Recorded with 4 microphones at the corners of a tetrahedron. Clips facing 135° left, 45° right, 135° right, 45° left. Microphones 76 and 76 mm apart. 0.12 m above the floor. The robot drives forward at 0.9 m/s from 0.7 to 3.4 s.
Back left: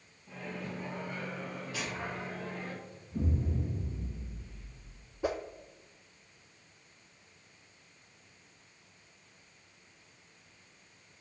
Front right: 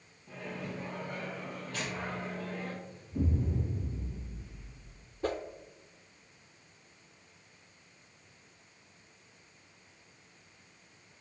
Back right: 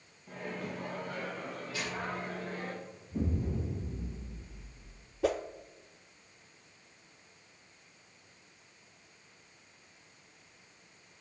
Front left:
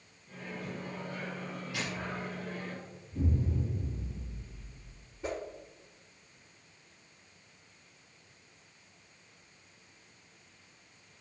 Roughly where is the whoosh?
Behind right.